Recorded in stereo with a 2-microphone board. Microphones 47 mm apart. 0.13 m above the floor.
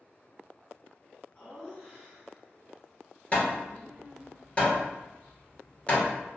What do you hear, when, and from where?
1.4 s laughter: 25° left (ahead or behind), 1.6 m; by 4.3 s 40° right (ahead or behind), 1.9 m
3.3 s hammering: 25° left (ahead or behind), 1.2 m